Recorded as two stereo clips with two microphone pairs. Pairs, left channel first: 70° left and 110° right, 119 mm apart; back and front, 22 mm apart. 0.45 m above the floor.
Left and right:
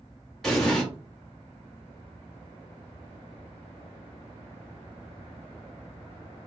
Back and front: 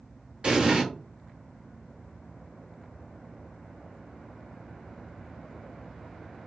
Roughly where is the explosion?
Ahead.